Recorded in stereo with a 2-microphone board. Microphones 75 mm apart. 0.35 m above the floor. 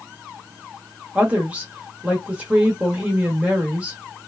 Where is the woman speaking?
20° right (ahead or behind), 0.8 m.